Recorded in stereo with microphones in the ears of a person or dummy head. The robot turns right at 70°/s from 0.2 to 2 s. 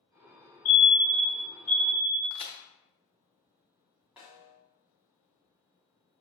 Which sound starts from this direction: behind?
A fire alarm, at 0.7 s.